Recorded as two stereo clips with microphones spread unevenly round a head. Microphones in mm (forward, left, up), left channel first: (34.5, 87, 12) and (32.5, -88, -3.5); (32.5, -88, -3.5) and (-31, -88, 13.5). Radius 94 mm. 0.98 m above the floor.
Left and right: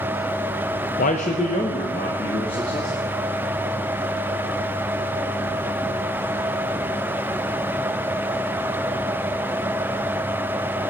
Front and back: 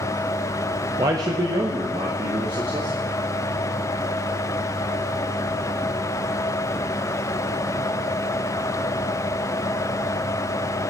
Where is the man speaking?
130° left, 0.7 m; by 3.0 s 155° left, 2.5 m.